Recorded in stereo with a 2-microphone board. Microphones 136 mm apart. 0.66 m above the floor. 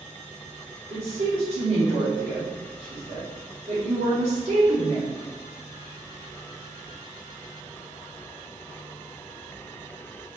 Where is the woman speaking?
45° right (ahead or behind), 1.5 m.